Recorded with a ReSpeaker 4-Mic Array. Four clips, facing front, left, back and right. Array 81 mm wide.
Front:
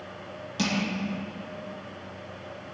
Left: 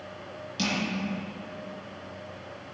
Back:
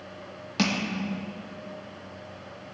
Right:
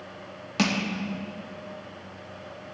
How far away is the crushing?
About 2 m.